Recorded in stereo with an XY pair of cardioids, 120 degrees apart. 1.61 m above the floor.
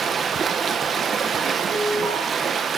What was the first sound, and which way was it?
Running water, 40° right.